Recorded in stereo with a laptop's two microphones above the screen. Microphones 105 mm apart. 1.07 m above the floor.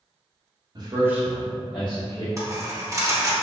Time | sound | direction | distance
0.8 | a man speaking | 45° right (ahead or behind) | 0.8 m
2.4 | a dropped coin | 35° right (ahead or behind) | 0.5 m